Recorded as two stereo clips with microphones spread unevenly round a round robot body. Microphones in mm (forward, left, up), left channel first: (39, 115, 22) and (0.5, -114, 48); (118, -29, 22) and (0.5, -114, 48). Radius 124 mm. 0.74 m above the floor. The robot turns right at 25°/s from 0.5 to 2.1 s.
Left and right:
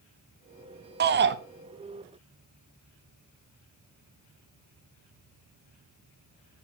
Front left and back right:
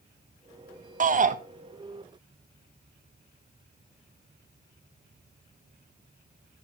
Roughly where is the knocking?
No knocking in this recording.